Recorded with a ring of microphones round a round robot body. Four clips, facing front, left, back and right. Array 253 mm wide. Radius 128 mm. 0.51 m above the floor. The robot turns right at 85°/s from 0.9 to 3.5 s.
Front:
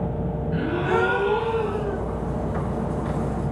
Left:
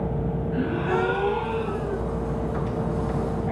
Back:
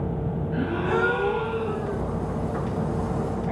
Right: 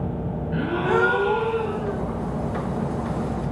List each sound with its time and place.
0.5 s a gasp: 80° right, 2 m; by 2.0 s 10° left, 2 m